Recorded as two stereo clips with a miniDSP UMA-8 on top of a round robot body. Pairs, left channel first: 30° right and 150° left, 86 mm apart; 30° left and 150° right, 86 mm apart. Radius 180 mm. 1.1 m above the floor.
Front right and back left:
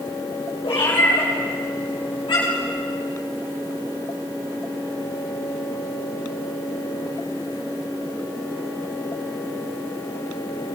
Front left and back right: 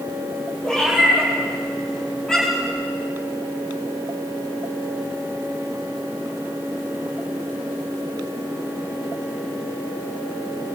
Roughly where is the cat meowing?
Ahead right.